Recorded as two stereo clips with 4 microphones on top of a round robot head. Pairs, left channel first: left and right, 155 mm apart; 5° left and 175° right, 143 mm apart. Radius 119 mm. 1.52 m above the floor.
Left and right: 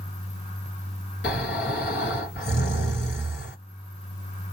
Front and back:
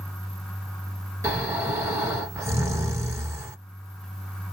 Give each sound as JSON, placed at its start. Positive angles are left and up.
{"t": 1.2, "sound": "snoring", "azimuth_deg": 115, "distance_m": 2.0}